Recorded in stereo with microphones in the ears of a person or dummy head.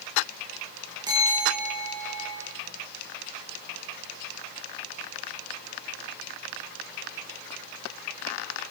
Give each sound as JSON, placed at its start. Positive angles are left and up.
{"t": 1.1, "sound": "a bell", "side_deg": -25, "distance_m": 8.5}